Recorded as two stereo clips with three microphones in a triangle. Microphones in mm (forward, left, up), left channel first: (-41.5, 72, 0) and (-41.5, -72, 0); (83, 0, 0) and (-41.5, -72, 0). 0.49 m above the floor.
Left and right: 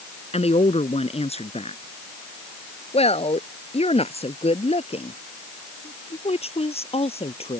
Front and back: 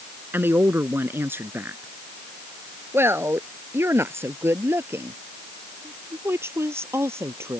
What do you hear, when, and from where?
0.3 s a woman speaking: 135° left